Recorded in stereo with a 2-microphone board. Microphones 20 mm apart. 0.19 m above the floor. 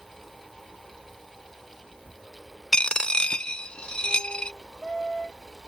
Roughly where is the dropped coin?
Left.